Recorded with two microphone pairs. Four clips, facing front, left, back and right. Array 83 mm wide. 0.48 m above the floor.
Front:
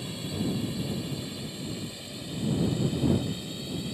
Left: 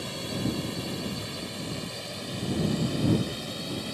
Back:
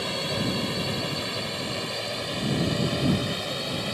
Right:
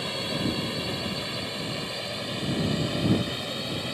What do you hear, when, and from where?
0.0 s a drone: 155° right